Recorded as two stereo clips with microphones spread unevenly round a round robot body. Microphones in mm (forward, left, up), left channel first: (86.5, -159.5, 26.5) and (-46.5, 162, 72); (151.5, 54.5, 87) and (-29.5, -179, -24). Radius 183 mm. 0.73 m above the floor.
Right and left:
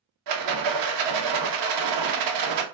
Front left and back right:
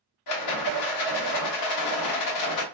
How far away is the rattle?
About 0.8 m.